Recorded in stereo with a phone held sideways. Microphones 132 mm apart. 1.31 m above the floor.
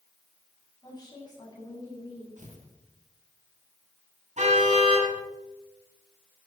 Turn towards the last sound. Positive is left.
turn(degrees=-60)  # may be behind; listen again after turning